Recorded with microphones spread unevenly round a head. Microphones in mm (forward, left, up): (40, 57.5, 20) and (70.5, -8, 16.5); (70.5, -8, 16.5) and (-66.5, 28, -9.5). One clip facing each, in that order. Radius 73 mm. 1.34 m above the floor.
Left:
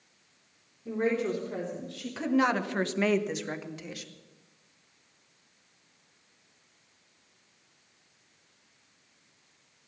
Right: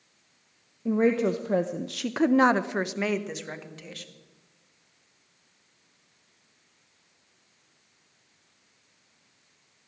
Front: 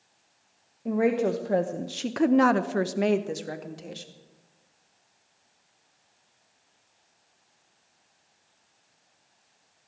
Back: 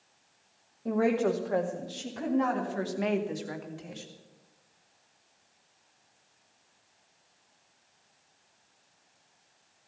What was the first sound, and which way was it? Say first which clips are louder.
A woman speaking: right 5 dB, front 2 dB; 95° right.